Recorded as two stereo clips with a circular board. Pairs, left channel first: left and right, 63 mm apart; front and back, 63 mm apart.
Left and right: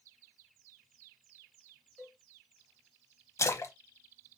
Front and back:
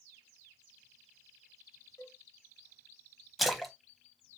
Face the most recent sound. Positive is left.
turn(degrees=90)